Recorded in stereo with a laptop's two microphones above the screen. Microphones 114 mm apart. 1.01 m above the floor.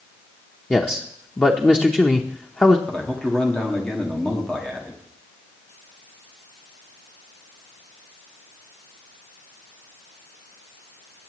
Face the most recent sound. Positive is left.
turn(degrees=5)  # may be behind; listen again after turning